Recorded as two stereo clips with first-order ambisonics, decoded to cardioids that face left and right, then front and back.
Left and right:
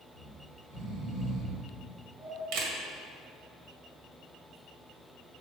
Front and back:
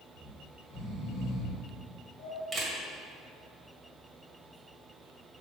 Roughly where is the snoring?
Ahead right.